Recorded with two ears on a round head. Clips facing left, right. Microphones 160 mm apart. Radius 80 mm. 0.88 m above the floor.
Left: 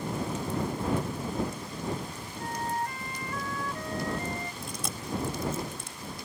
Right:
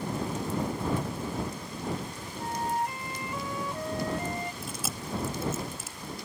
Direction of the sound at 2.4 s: 15° right (ahead or behind).